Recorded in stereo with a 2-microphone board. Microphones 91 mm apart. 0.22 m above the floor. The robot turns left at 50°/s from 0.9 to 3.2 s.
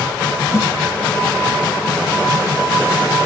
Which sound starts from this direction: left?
A snare drum, at 0.5 s.